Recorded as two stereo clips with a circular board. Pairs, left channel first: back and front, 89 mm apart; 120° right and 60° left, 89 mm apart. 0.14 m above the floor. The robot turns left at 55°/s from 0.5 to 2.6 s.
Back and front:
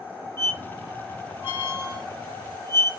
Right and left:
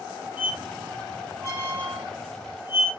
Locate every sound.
0.4 s a squeak: 125° right, 1.0 m; by 2.9 s 120° left, 1.0 m